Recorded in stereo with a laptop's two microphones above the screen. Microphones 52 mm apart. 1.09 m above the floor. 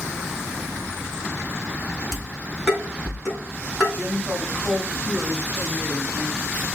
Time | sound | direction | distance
2.1 | dishes clattering | 10° right (ahead or behind) | 6.5 m
3.9 | a woman speaking | 30° right (ahead or behind) | 6 m